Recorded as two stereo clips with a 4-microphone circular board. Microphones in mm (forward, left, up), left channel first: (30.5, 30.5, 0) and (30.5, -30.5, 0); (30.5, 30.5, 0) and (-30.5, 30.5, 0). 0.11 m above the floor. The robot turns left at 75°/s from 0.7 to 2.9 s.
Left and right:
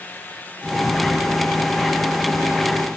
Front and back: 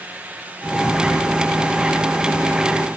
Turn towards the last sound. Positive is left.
No sound to turn to.